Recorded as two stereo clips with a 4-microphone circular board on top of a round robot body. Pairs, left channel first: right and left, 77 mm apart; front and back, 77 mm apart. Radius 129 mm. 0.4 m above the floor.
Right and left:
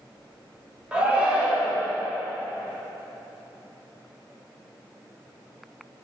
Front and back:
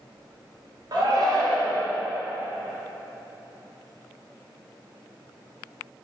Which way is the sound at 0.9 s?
165° left.